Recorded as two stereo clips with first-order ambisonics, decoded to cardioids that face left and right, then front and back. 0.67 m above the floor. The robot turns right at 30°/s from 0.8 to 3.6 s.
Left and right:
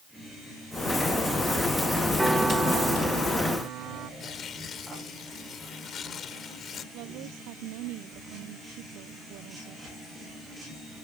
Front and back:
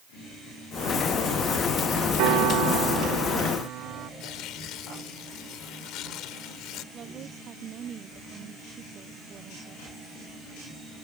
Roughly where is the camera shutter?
No camera shutter in this recording.